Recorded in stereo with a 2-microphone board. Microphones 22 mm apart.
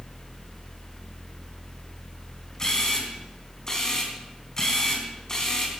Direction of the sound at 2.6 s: 25° left (ahead or behind).